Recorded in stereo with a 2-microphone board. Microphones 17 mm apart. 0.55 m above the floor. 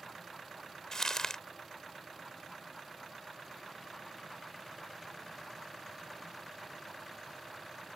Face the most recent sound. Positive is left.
turn(degrees=35)  # may be behind; listen again after turning